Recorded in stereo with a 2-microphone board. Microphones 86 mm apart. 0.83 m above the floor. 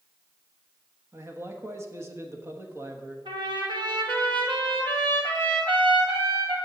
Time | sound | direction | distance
1.1 | a man speaking | 30° right (ahead or behind) | 1.3 m
3.2 | a trumpet | 75° right (ahead or behind) | 3.5 m